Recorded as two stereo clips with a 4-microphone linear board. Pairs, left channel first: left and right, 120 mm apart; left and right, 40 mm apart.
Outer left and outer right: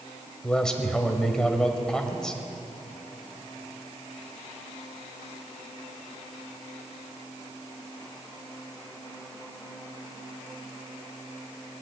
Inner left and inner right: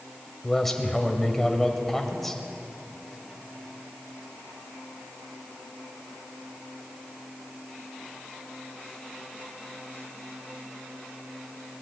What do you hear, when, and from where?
0.4 s a man speaking: 5° left (ahead or behind), 1.4 m